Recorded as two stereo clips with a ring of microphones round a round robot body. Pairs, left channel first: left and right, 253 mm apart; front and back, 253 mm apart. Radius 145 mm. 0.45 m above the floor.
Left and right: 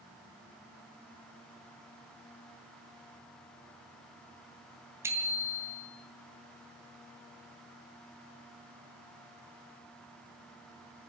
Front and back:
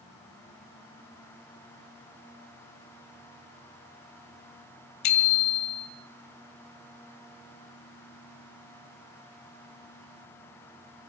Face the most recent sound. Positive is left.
turn(degrees=-10)